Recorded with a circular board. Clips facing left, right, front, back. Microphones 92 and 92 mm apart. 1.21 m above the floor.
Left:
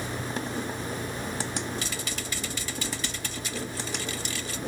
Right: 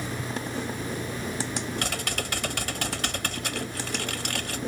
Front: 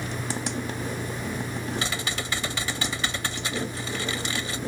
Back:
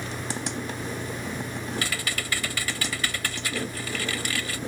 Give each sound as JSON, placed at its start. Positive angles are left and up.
{"t": 1.8, "sound": "typing on a keyboard", "azimuth_deg": -65}